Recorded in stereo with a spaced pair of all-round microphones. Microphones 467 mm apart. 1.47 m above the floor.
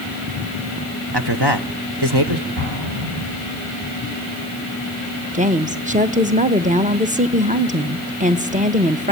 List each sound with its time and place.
1.1 s a man speaking: 55° right (ahead or behind), 1.4 m
2.6 s an explosion: 45° right (ahead or behind), 9 m
5.3 s a woman speaking: 15° right (ahead or behind), 1.1 m